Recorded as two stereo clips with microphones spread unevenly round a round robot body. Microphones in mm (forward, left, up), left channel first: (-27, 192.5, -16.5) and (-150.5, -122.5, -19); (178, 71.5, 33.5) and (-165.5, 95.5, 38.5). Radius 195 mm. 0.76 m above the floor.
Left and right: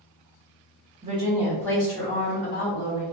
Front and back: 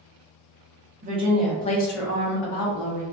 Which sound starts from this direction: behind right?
A woman speaking, at 1.0 s.